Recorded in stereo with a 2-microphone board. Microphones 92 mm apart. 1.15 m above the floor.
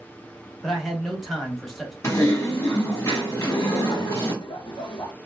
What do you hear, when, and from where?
0.6 s a man speaking: centre (ahead or behind), 1.4 m
2.0 s typing on a keyboard: 30° left (ahead or behind), 1.3 m
3.4 s laughter: 55° left (ahead or behind), 0.9 m